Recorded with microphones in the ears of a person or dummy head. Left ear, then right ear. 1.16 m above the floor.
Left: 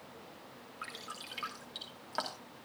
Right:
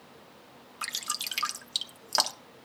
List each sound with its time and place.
0.8 s dripping: 80° right, 1.1 m